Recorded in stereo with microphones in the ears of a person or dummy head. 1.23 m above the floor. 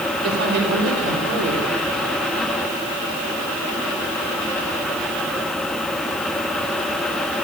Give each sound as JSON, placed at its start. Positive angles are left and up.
{"t": 0.2, "sound": "a woman speaking", "side_deg": -65, "distance_m": 3.5}